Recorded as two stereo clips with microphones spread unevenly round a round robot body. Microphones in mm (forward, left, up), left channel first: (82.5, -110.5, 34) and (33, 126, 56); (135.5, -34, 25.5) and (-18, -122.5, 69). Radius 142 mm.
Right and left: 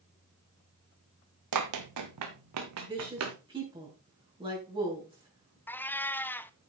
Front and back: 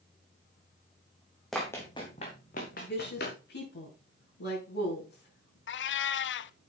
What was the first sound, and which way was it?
Running footsteps, 125° left.